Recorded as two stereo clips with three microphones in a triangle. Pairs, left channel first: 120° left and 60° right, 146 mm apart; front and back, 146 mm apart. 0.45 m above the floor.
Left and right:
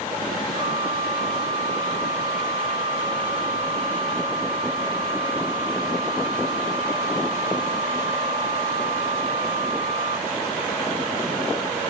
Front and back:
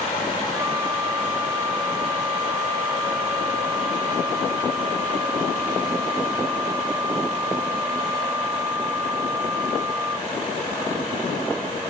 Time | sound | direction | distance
0.5 | a flute | 105° right | ?